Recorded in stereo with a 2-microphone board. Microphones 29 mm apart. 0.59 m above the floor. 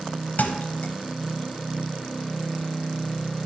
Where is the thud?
80° left, 0.9 m.